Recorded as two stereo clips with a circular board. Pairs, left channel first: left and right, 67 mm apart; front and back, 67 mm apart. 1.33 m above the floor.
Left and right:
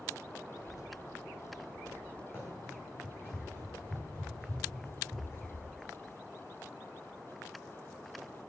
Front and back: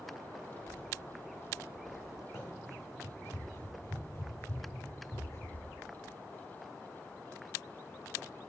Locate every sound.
0.5 s a child speaking: 65° left, 2 m; by 2.2 s 15° left, 0.7 m
2.3 s running footsteps: 40° left, 6 m; by 5.6 s 35° left, 7.5 m